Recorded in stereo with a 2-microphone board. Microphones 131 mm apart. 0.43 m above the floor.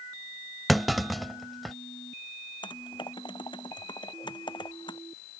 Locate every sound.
0.7 s a clunk: centre (ahead or behind)
2.6 s typing on a keyboard: 40° left (ahead or behind)